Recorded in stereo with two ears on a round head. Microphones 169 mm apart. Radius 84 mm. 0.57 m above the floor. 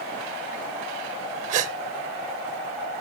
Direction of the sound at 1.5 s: 40° right (ahead or behind).